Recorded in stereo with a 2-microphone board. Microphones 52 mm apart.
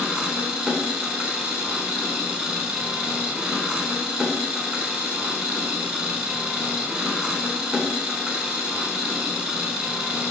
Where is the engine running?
20° right (ahead or behind), 0.7 m.